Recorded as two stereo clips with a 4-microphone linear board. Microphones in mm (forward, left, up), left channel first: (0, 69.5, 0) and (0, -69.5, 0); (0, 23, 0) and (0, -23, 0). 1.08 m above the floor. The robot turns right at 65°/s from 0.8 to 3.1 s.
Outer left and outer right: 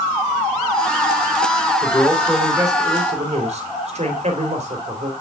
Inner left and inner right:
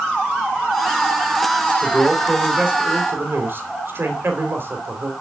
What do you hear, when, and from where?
1.8 s a man speaking: 150° left, 3.5 m; by 5.1 s 125° right, 3.5 m